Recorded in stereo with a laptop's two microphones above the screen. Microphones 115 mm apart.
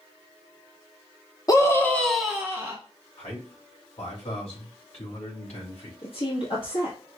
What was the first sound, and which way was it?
A scream, 30° left (ahead or behind).